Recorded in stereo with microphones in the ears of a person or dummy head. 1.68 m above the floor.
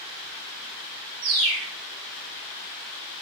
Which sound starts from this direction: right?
A bird, at 1.2 s.